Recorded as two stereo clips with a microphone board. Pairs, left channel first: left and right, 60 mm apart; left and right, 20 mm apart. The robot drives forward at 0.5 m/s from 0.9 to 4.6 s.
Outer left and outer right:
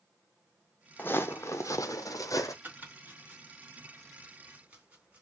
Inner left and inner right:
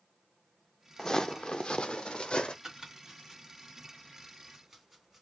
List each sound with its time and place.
1.0 s footsteps: 35° left (ahead or behind), 0.6 m; by 2.5 s 65° left (ahead or behind), 0.7 m
2.6 s chopping: 35° right (ahead or behind), 2 m; by 5.2 s 25° right (ahead or behind), 2.5 m